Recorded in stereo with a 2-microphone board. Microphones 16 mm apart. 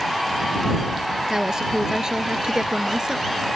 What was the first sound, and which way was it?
A woman speaking, 50° right (ahead or behind).